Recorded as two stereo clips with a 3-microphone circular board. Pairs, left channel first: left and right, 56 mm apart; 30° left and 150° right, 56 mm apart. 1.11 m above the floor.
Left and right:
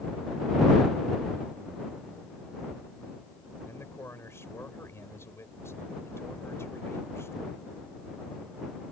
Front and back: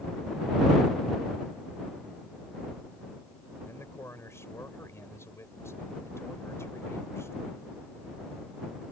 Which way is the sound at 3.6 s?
60° left.